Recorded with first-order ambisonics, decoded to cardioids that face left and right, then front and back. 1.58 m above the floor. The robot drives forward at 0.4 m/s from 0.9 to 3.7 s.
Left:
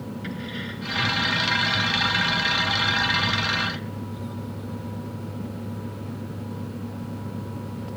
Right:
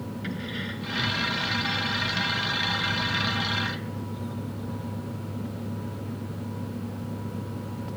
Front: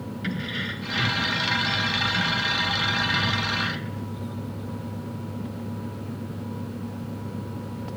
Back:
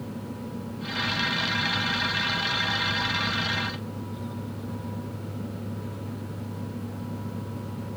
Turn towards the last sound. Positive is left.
turn(degrees=0)